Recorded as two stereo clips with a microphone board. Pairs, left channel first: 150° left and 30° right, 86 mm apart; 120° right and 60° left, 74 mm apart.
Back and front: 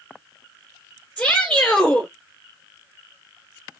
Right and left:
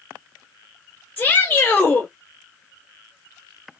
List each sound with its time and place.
1.2 s a shout: 150° right, 1.9 m